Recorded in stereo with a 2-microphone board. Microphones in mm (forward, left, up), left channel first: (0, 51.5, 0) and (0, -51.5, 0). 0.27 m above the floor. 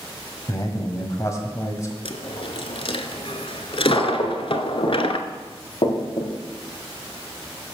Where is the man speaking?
30° left (ahead or behind), 1.6 m.